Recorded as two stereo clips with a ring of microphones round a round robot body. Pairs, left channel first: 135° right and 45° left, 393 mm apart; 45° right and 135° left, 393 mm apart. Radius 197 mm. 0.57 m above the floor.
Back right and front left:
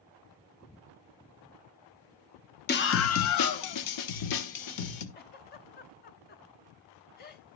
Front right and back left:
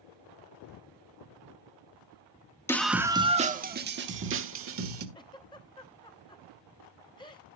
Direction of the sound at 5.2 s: 110° right.